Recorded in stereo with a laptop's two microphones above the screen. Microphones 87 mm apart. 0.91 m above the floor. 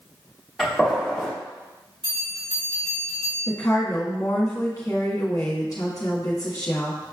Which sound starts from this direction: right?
A bell, at 2.0 s.